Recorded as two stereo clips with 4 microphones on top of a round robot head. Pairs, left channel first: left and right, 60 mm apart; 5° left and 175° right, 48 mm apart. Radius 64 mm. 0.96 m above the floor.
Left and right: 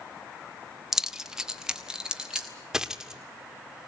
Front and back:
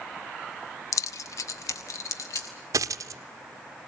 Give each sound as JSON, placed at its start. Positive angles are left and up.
{"t": 0.9, "sound": "keys jangling", "azimuth_deg": -10, "distance_m": 0.6}
{"t": 2.7, "sound": "a dropped coin", "azimuth_deg": -175, "distance_m": 0.8}